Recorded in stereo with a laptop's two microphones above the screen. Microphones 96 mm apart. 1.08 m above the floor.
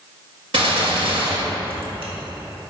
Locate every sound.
0.5 s a gunshot: 70° right (ahead or behind), 1.7 m